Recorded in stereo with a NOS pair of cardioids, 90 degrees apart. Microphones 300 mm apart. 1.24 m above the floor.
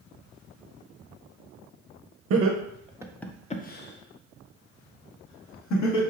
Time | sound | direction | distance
2.3 | laughter | 55° right | 0.8 m